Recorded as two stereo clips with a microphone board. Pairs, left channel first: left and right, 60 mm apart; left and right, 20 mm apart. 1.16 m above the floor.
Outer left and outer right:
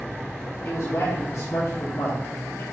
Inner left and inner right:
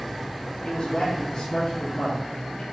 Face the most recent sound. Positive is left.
turn(degrees=50)  # may be behind; listen again after turning